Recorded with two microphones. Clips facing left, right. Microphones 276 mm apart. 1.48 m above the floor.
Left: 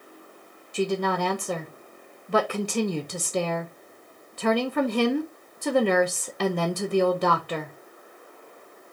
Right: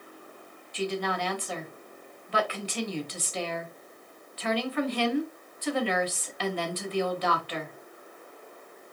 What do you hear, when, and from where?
0.7 s a woman speaking: 55° left (ahead or behind), 1.0 m